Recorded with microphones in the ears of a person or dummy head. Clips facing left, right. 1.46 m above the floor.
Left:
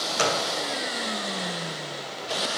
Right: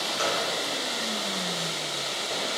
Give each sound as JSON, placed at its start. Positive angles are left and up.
{"t": 0.2, "sound": "a gunshot", "side_deg": 75, "distance_m": 0.8}